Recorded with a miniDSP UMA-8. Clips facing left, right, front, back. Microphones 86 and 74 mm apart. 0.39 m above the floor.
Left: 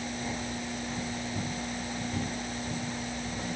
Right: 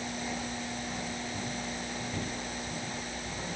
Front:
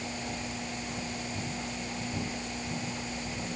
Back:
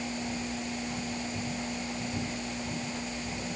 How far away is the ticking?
No ticking in this recording.